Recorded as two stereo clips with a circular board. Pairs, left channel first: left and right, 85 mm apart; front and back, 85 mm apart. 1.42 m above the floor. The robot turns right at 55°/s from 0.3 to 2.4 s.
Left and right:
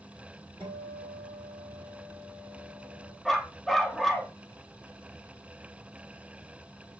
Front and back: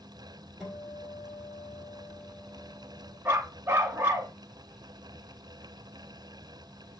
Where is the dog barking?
175° left, 0.8 m.